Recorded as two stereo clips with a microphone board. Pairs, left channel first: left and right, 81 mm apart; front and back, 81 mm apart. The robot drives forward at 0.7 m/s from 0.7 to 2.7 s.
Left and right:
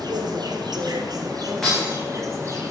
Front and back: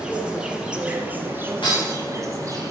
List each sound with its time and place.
0.0 s an insect: 100° right, 1.6 m; by 2.7 s 140° right, 2.5 m
1.6 s breaking glass: 5° left, 5.5 m